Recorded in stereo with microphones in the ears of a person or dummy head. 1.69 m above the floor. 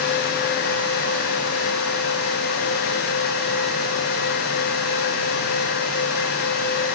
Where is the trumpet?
I don't hear a trumpet.